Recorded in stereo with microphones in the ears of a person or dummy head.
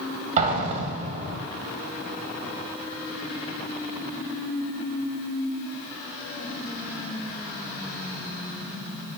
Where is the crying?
I don't hear crying.